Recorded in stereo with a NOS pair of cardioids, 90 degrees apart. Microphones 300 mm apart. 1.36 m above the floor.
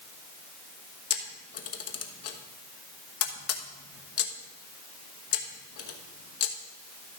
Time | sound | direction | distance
1.1 | a camera shutter | 60° left | 1.1 m